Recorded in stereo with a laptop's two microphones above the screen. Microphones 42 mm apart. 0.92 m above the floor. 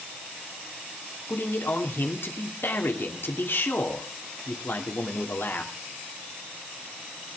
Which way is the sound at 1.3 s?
65° left (ahead or behind).